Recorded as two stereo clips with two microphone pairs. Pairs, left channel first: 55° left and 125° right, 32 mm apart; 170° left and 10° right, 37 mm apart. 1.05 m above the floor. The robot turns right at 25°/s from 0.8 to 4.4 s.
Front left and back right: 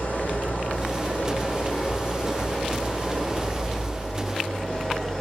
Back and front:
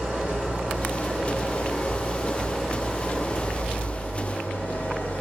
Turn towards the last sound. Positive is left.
turn(degrees=120)